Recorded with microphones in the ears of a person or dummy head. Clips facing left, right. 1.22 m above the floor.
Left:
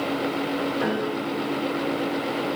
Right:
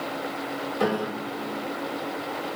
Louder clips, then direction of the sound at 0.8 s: Left 1 dB; 30° right (ahead or behind).